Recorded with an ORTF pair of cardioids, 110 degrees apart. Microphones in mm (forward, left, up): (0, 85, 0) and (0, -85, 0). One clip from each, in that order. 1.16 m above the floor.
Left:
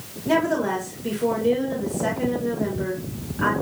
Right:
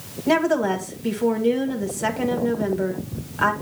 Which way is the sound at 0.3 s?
45° right.